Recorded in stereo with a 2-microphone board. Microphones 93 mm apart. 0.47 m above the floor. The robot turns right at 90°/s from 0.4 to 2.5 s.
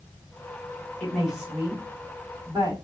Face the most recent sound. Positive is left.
turn(degrees=-40)  # may be behind; listen again after turning